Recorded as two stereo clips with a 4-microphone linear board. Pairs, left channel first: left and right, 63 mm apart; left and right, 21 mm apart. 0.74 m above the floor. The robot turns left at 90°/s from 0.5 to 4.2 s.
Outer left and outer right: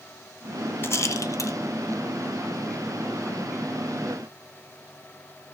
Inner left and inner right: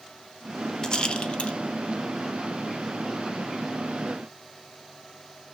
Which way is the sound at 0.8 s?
35° left (ahead or behind).